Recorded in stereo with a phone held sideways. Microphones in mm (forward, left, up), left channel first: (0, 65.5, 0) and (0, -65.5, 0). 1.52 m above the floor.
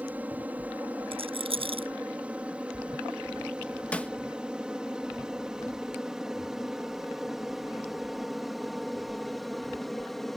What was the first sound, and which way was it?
An aircraft, 10° right (ahead or behind).